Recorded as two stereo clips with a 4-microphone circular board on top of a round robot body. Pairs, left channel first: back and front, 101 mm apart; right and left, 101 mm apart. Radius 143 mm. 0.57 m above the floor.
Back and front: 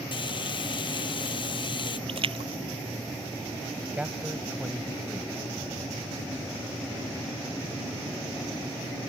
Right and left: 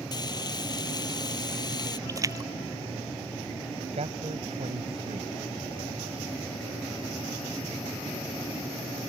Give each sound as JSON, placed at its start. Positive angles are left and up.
{"t": 0.1, "sound": "frying", "azimuth_deg": -140}
{"t": 2.1, "sound": "a splash", "azimuth_deg": 30}
{"t": 3.9, "sound": "a man speaking", "azimuth_deg": 80}